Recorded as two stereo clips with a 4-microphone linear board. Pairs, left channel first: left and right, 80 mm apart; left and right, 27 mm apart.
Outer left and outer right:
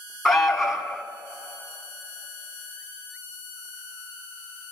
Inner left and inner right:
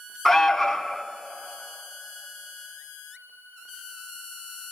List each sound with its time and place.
0.2 s an alarm: 5° left (ahead or behind), 1.5 m